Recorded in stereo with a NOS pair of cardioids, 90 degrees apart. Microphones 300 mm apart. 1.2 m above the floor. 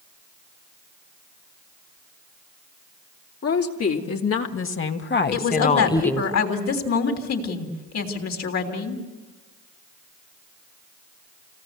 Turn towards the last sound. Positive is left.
turn(degrees=60)